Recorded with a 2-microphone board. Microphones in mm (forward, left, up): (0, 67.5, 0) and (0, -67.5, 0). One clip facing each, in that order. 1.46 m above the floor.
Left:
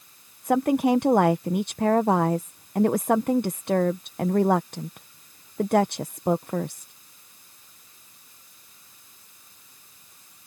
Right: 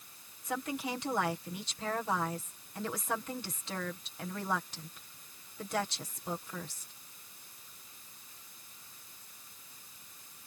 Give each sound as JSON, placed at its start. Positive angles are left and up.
{"t": 0.4, "sound": "a woman speaking", "side_deg": 60}